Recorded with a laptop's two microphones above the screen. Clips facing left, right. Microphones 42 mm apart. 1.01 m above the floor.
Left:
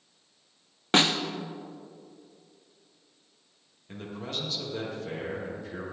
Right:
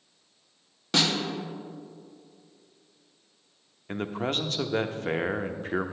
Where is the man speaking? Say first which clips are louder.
Right 7 dB; 50° right (ahead or behind), 0.8 m.